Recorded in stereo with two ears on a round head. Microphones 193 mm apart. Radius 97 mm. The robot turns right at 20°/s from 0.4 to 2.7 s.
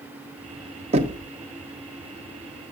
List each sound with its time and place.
0.9 s knocking: 30° right (ahead or behind), 0.6 m; by 1.2 s 25° right (ahead or behind), 0.6 m